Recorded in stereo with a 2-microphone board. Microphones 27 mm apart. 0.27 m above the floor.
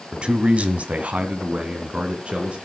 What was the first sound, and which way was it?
A man speaking, 40° right (ahead or behind).